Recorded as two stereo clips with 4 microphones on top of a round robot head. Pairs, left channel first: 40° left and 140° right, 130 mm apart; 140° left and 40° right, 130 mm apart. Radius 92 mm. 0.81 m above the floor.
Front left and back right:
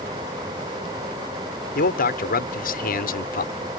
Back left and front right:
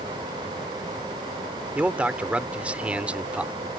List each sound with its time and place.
1.8 s a man speaking: 40° left